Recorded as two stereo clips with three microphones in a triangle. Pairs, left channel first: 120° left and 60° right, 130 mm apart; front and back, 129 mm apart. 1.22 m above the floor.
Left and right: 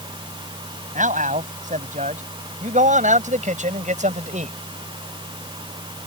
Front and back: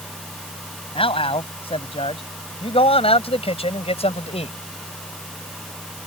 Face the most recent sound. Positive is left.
turn(degrees=-40)